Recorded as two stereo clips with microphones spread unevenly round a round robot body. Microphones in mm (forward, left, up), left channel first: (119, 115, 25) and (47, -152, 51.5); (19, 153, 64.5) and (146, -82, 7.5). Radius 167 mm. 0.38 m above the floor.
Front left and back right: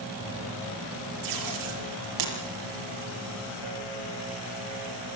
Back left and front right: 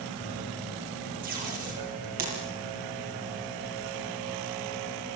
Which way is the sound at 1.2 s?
125° right.